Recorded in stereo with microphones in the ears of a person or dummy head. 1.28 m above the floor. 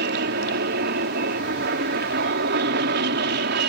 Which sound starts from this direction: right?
An aircraft, at 0.0 s.